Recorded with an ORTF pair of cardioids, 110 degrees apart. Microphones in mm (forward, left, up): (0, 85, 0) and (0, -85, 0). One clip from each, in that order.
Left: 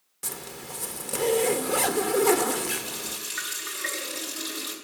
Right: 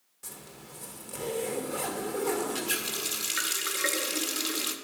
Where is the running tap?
45° right, 1.8 m.